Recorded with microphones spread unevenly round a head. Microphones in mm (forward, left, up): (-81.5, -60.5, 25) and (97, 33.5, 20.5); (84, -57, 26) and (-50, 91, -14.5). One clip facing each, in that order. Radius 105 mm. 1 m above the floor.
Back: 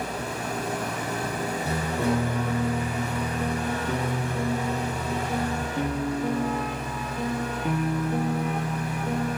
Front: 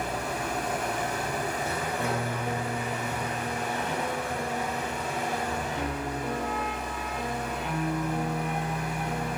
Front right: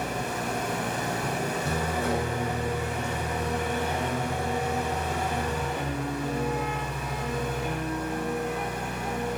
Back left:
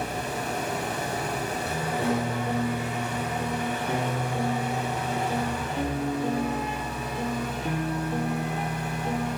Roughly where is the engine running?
Right.